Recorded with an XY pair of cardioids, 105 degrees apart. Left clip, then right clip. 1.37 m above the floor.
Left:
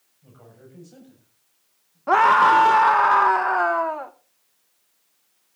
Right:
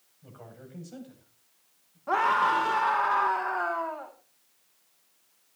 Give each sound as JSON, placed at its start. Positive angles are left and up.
{"t": 0.2, "sound": "a man speaking", "azimuth_deg": -30, "distance_m": 9.0}
{"t": 2.1, "sound": "a scream", "azimuth_deg": 60, "distance_m": 0.9}